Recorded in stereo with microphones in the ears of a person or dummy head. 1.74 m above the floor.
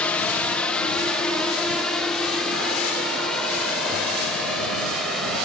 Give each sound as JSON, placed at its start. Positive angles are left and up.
{"t": 0.0, "sound": "a drone", "side_deg": 5}